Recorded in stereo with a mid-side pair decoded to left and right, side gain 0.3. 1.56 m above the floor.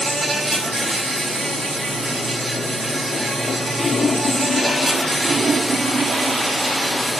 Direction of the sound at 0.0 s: 70° right.